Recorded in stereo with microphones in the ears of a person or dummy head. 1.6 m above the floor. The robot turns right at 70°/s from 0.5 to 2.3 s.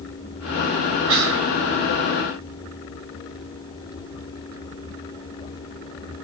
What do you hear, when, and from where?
1.1 s whispering: 115° right, 0.8 m; by 1.5 s 85° right, 0.8 m